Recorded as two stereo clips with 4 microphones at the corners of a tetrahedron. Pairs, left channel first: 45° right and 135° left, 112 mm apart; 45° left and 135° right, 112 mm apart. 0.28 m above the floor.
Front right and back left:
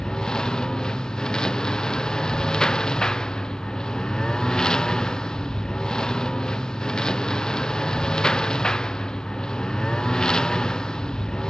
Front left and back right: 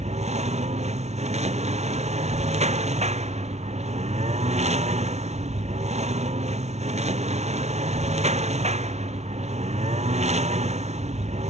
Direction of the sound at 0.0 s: 130° right.